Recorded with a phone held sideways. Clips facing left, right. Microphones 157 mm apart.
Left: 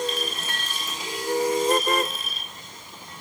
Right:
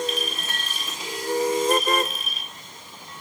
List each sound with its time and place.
0.1 s a clink: 15° right (ahead or behind), 5.5 m